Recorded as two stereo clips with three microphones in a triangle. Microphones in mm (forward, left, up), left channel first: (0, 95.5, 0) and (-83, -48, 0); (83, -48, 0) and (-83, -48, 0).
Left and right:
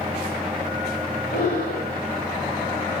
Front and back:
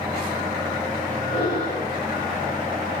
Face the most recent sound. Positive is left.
turn(degrees=55)